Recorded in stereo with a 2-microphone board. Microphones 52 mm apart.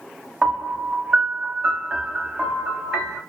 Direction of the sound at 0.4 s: 10° right (ahead or behind).